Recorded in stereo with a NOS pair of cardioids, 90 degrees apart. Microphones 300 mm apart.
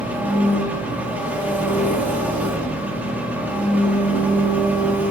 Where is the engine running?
5° right, 1.6 m.